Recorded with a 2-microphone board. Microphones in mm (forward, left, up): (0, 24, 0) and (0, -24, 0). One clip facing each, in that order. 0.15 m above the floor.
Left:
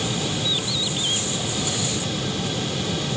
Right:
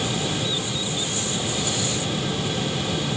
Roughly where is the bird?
Left.